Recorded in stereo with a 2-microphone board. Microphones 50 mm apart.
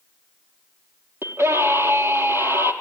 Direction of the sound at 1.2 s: 70° right (ahead or behind).